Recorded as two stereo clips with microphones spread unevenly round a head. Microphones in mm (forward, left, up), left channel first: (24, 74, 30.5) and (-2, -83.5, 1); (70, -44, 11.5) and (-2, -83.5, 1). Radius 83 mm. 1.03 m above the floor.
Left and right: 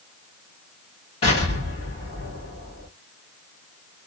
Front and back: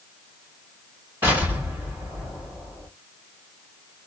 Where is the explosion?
130° left, 2.5 m.